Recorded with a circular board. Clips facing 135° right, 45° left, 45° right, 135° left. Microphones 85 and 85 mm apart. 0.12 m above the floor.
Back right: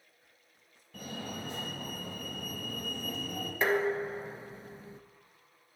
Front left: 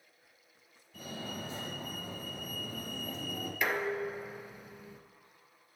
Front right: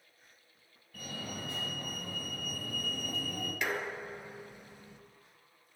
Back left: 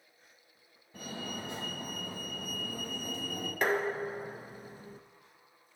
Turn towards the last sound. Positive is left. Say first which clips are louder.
# back right 4 dB, back left 7 dB
turn(degrees=175)